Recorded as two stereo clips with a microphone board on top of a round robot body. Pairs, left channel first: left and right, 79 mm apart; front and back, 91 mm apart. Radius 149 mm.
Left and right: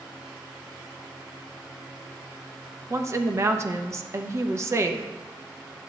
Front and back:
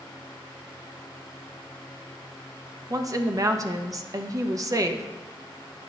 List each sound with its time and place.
2.9 s a woman speaking: 135° right, 0.7 m